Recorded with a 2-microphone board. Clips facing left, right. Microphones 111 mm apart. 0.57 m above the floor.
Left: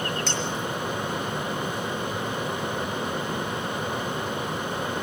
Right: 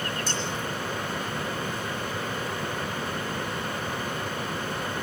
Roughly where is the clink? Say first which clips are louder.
Left 2 dB; left.